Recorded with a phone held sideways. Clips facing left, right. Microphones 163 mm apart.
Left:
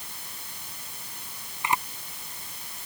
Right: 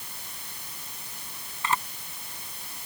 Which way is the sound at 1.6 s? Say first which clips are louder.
Left 1 dB; 15° left (ahead or behind).